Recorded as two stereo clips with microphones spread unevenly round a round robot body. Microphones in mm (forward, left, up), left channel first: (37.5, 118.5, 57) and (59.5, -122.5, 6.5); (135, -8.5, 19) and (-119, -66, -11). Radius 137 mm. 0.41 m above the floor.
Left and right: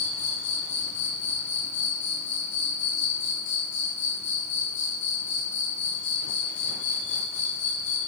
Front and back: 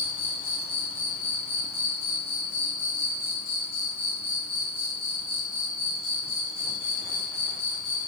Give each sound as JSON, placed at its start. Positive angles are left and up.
{"t": 0.0, "sound": "an insect", "azimuth_deg": 65, "distance_m": 1.4}